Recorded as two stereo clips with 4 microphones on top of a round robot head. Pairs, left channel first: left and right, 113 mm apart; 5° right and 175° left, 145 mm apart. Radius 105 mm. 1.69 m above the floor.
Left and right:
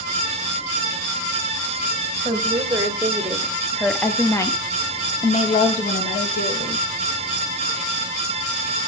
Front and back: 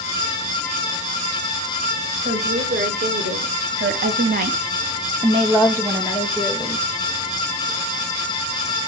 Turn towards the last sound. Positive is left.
turn(degrees=90)